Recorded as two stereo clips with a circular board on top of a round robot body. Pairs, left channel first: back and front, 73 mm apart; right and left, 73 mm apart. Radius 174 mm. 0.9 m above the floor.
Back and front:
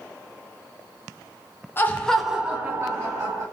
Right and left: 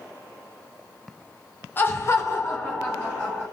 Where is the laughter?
135° right, 0.8 m; by 3.4 s 35° right, 1.3 m.